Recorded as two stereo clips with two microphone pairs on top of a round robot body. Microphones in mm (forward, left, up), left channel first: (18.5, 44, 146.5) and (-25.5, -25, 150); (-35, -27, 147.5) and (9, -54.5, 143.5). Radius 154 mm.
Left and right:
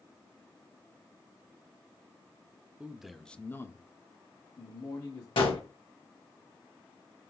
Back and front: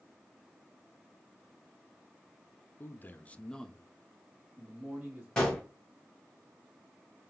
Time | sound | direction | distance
2.8 | a man speaking | 165° left | 0.7 m
5.4 | a gunshot | 70° left | 1.0 m